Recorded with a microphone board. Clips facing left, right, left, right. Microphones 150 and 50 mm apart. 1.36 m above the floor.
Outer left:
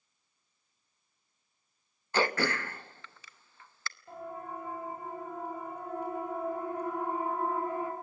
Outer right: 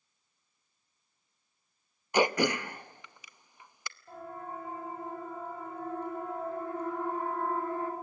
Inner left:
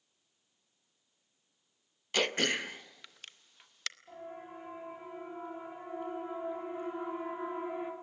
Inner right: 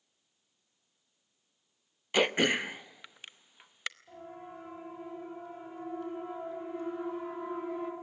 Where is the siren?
10° left (ahead or behind), 9 m; by 7.9 s 15° left (ahead or behind), 4 m.